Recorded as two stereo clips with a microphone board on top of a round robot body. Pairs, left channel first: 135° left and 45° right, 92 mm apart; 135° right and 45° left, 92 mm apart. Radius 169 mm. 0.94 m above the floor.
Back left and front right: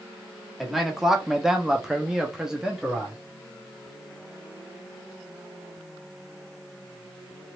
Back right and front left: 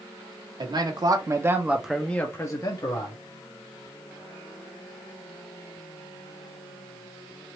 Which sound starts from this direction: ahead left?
A man speaking, at 0.6 s.